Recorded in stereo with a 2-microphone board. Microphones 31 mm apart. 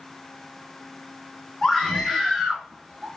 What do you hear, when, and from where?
1.6 s a scream: 5° left (ahead or behind), 1.0 m; by 3.1 s 30° right (ahead or behind), 1.1 m